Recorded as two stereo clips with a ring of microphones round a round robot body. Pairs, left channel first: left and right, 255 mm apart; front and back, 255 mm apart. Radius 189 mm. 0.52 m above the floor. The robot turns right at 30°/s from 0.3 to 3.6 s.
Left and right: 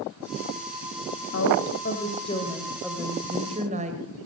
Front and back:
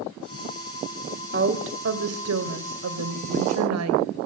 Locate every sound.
1.3 s a woman speaking: 135° left, 2.5 m; by 4.1 s 160° right, 2.5 m